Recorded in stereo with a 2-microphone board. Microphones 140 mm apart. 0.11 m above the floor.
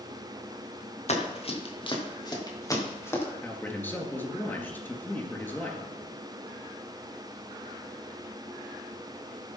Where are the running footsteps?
50° left (ahead or behind), 3 m; by 3.2 s 15° left (ahead or behind), 4 m.